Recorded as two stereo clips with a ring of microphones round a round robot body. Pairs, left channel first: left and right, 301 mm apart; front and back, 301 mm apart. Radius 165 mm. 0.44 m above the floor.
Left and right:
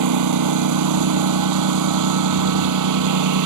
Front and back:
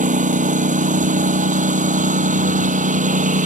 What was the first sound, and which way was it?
A lawn mower, 115° right.